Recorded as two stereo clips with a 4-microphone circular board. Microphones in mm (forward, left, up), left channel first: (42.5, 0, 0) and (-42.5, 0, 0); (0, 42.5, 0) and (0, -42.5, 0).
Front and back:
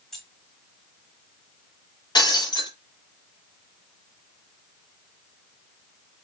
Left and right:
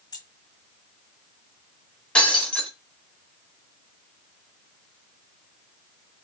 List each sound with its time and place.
0.1 s keys jangling: 80° left, 1.4 m
2.1 s breaking glass: 15° left, 1.3 m